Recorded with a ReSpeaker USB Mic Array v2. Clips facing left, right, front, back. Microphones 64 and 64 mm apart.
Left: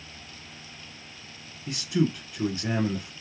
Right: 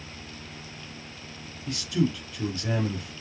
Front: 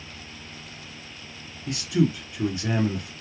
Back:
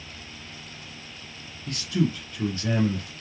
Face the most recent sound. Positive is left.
turn(degrees=55)